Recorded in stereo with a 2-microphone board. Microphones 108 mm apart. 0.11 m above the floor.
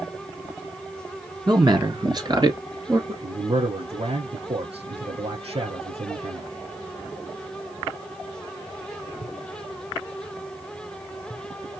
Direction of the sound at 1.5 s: 40° right (ahead or behind).